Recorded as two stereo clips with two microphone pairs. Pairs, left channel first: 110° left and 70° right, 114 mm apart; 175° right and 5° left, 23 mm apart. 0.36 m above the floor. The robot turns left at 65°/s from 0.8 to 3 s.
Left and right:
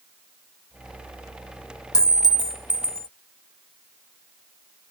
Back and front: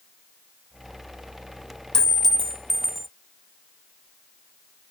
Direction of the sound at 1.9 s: 145° left.